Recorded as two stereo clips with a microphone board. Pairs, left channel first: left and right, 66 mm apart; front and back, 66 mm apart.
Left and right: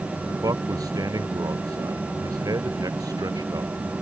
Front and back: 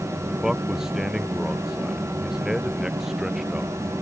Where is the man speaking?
100° right.